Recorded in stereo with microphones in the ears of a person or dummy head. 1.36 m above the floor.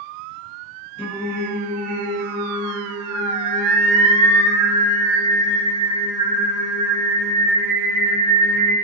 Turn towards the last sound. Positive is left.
turn(degrees=10)  # may be behind; listen again after turning